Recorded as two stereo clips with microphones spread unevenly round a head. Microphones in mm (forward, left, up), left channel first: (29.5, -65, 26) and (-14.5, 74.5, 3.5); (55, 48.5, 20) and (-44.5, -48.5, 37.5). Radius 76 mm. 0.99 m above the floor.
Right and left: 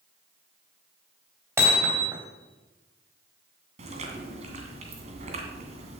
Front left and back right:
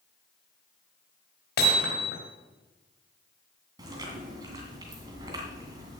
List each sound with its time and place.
1.6 s hammering: 35° left, 3.5 m
3.8 s chewing: 160° left, 2 m